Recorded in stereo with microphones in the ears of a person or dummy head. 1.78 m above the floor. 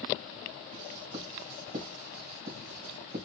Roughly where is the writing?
Right.